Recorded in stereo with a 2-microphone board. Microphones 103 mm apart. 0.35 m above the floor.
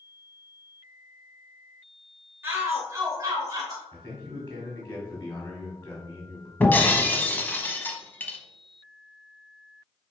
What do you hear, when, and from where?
2.4 s a shout: 20° right (ahead or behind), 1.3 m; by 3.8 s 35° right (ahead or behind), 1.5 m
3.9 s a man speaking: 15° left (ahead or behind), 2.5 m
6.6 s breaking glass: 20° left (ahead or behind), 1.0 m